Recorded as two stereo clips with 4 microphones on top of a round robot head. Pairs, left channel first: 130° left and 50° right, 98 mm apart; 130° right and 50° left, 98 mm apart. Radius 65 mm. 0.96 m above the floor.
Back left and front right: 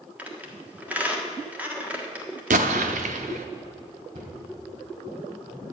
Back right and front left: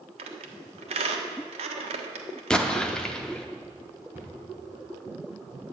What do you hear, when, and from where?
0.2 s a squeak: 25° left, 1.4 m
2.5 s an explosion: 50° right, 0.7 m
4.1 s a cupboard door: 25° right, 4 m